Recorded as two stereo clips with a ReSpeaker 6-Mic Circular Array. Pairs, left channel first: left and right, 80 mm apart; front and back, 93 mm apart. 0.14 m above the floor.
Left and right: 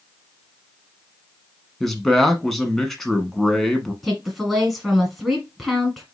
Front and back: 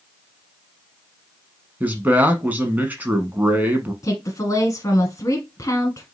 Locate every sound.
1.8 s a man speaking: 175° left, 1.0 m
4.0 s a woman speaking: 5° right, 1.6 m